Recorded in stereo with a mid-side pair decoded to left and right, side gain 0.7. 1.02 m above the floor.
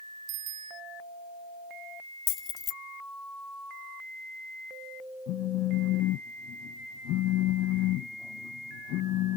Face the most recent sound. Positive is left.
turn(degrees=60)